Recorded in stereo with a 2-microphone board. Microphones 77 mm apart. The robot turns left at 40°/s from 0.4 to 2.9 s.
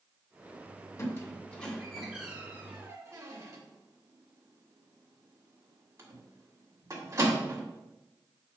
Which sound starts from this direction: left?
A squeak, at 1.0 s.